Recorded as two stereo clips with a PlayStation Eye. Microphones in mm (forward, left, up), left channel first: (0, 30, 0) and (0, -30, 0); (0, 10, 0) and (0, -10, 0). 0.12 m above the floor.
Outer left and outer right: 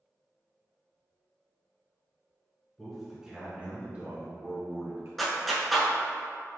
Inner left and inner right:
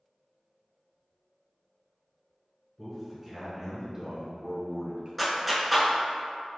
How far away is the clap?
About 0.9 m.